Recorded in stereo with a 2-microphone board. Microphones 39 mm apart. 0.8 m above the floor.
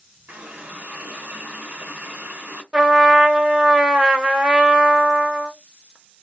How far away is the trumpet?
About 0.8 m.